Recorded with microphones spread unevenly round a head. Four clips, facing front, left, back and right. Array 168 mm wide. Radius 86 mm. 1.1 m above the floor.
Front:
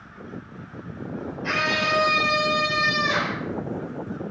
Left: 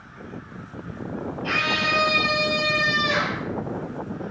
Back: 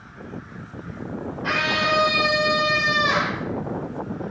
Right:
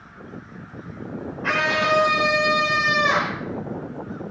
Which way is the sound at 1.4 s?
115° right.